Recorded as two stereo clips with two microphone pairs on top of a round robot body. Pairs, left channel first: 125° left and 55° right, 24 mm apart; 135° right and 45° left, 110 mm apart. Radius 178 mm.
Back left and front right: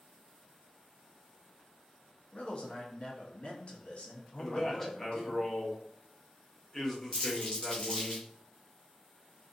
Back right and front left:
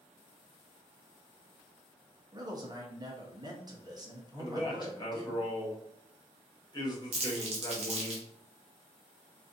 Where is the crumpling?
70° left, 0.5 m.